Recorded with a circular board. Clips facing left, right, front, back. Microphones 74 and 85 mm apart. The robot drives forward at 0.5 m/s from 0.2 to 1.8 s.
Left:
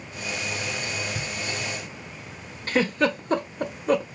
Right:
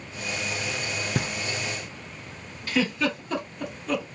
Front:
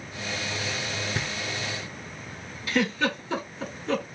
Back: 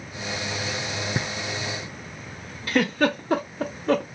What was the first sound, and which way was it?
Knocking, 110° right.